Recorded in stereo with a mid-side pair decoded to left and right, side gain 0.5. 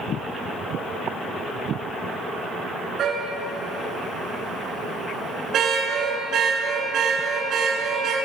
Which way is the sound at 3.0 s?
50° right.